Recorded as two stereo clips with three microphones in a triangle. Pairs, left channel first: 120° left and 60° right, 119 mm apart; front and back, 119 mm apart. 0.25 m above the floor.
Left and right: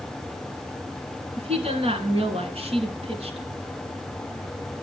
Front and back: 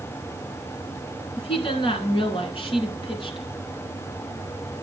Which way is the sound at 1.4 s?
35° right.